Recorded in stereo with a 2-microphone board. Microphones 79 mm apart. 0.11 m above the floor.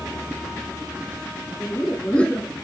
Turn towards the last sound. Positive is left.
turn(degrees=15)  # may be behind; listen again after turning